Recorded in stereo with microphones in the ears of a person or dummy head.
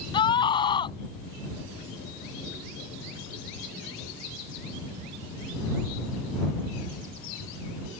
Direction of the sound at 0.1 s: 25° left (ahead or behind).